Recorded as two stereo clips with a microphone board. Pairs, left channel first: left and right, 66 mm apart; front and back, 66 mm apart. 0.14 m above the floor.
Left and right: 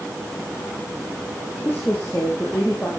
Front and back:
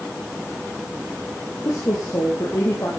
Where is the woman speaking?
30° left, 4 m.